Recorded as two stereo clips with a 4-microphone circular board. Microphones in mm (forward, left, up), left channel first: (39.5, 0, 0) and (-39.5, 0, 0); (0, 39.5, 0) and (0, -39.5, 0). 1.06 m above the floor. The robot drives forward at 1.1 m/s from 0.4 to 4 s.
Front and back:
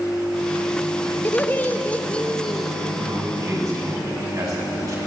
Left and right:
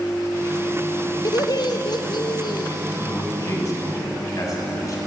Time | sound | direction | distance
1.2 | laughter | 60° left | 3.5 m
3.0 | a man speaking | 135° left | 7.5 m